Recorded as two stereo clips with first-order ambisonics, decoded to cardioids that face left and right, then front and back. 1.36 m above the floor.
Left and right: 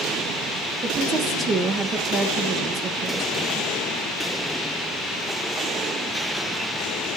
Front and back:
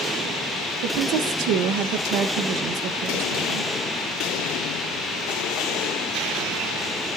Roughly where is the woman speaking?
Behind.